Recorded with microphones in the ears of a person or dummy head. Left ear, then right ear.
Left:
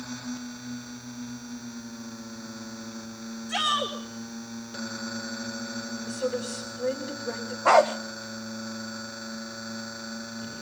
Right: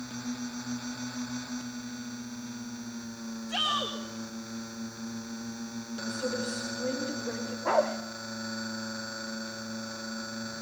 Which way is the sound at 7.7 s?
20° left (ahead or behind).